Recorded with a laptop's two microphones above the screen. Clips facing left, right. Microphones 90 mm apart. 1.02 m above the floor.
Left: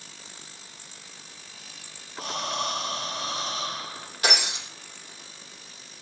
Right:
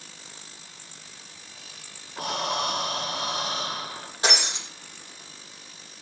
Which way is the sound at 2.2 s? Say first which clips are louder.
Right 3 dB; 70° right (ahead or behind).